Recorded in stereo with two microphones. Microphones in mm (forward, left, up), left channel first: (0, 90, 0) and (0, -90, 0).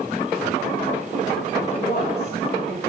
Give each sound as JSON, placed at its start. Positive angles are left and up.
{"t": 1.7, "sound": "a woman speaking", "side_deg": 65, "distance_m": 6.5}